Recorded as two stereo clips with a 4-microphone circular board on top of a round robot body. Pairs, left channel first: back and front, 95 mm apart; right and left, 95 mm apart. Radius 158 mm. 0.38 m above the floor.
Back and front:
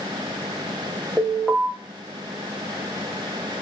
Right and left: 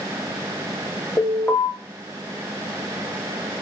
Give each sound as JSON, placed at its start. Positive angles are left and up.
{"t": 1.2, "sound": "an alarm", "azimuth_deg": -110, "distance_m": 1.4}